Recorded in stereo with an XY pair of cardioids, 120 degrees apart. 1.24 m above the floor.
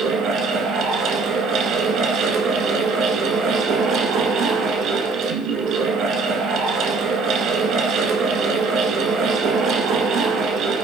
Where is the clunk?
I don't hear a clunk.